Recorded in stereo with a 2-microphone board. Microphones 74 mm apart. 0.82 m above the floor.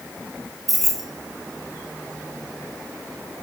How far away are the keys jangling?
About 3 m.